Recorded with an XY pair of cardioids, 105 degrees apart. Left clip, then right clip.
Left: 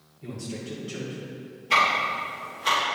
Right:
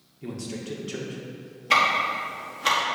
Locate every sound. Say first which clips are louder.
0.2 s a man speaking: right 1 dB; 40° right, 1.6 m
1.7 s ticking: right 1 dB; 55° right, 1.9 m